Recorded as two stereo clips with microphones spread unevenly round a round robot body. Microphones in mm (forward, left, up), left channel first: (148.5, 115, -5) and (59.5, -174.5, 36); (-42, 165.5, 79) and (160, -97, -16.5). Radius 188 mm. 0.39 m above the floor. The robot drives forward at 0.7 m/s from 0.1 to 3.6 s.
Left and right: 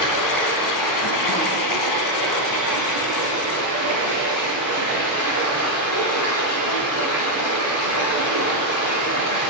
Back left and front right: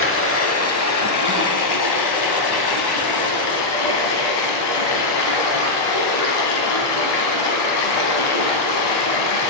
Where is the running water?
70° left, 3 m; by 9.5 s 120° left, 3 m.